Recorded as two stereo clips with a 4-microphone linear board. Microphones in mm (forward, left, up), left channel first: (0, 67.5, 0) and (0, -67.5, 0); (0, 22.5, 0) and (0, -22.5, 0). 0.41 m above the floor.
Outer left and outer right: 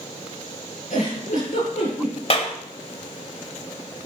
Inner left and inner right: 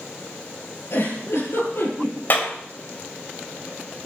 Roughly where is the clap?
Left.